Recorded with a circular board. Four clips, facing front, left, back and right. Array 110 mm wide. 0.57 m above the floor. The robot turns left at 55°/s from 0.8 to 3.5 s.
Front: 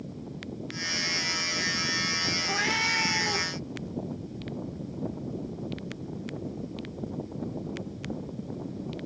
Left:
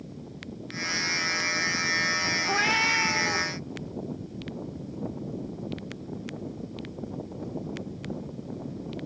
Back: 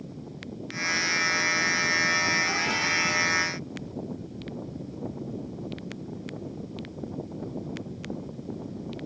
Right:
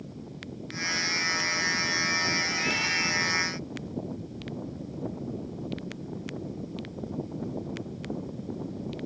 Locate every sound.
2.4 s a cat meowing: 90° left, 1.3 m; by 3.5 s 30° left, 1.3 m